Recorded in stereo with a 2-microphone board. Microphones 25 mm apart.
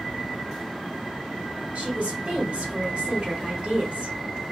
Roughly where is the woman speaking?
Right.